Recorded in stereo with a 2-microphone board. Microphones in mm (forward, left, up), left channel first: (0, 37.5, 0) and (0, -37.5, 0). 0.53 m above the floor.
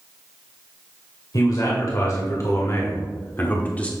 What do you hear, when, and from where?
1.3 s a man speaking: 55° left (ahead or behind), 2.5 m; by 3.9 s 15° left (ahead or behind), 1.5 m